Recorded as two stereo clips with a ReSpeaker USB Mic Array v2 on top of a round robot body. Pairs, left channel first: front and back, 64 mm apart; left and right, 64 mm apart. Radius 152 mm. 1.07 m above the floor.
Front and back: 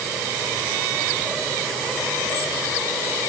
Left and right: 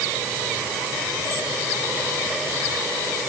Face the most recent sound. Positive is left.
No sound to turn to.